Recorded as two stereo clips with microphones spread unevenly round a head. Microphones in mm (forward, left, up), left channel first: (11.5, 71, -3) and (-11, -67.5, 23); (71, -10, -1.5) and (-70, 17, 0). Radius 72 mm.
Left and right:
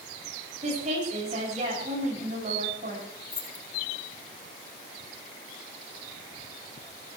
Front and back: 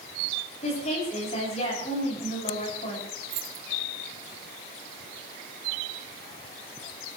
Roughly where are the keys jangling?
Behind left.